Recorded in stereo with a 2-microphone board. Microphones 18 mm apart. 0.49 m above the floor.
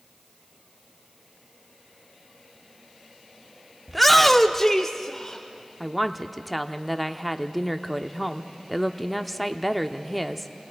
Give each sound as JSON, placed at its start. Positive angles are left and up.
{"t": 3.9, "sound": "a shout", "side_deg": 0, "distance_m": 0.7}
{"t": 5.8, "sound": "a woman speaking", "side_deg": 5, "distance_m": 0.7}